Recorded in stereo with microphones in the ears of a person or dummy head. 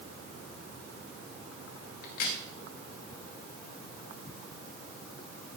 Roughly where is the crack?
Left.